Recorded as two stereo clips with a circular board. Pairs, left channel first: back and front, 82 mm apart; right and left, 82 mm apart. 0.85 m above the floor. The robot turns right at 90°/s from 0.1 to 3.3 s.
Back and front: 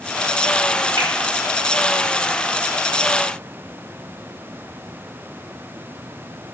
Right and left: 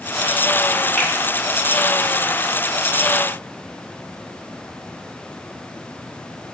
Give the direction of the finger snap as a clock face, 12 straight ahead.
1 o'clock.